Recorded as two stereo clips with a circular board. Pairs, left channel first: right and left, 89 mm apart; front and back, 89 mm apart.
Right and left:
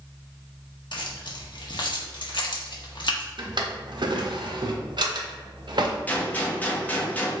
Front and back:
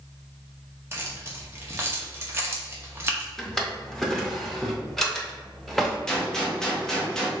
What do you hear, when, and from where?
0.9 s keys jangling: 120° right, 0.7 m
3.4 s a drawer: 85° left, 0.6 m
6.1 s a gunshot: 75° right, 0.6 m